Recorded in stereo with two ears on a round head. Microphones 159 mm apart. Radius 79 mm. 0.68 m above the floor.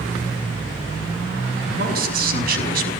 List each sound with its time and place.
1.6 s a man speaking: 60° right (ahead or behind), 6 m; by 2.9 s 55° right (ahead or behind), 5.5 m